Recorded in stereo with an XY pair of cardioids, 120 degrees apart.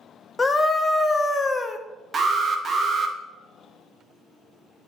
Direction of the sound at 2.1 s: 35° right.